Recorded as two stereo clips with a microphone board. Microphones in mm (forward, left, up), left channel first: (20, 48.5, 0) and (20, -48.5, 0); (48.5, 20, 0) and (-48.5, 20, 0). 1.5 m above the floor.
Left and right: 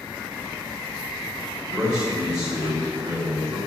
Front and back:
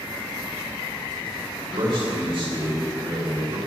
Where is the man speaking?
170° right, 5.5 m.